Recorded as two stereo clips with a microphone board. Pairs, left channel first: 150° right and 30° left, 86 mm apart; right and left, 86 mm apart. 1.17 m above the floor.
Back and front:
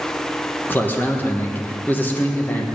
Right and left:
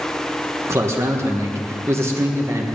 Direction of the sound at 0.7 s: 145° left.